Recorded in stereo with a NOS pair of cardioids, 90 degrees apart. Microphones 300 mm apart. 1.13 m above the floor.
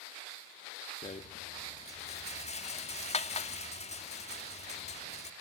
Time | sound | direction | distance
1.0 | a rattle | 20° left | 2.5 m